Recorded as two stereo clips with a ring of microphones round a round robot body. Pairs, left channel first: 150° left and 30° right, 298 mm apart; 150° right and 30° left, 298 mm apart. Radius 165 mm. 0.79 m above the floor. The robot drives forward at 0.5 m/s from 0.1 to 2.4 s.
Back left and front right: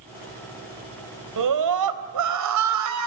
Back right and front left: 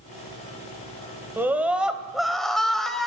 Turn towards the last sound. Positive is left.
turn(degrees=-60)